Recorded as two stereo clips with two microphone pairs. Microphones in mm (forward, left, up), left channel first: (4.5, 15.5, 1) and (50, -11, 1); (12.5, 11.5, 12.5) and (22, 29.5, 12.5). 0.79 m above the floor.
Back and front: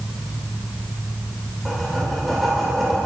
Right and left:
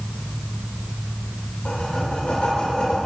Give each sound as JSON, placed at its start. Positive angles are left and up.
{"t": 1.6, "sound": "writing", "azimuth_deg": -120, "distance_m": 2.5}